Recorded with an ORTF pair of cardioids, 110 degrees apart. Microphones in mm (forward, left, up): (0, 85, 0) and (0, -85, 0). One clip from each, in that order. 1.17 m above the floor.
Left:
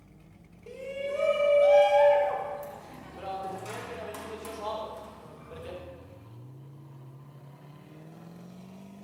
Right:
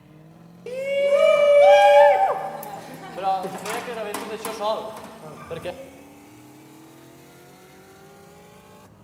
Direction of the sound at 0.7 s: 65° right.